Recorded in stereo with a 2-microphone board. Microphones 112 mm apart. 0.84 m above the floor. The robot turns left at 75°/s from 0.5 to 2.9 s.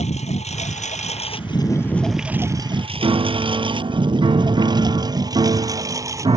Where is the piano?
45° right (ahead or behind).